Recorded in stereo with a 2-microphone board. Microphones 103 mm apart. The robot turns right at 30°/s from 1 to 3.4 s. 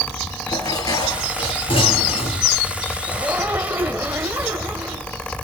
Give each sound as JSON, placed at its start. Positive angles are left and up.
{"t": 0.5, "sound": "dishes clattering", "azimuth_deg": 35, "distance_m": 4.0}
{"t": 3.1, "sound": "a zipper", "side_deg": -10, "distance_m": 1.6}